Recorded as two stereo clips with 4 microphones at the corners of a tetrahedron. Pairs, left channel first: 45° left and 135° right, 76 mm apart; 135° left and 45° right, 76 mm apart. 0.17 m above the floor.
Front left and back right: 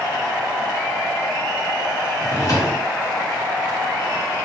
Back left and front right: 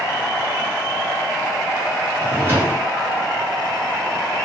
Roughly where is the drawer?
Ahead.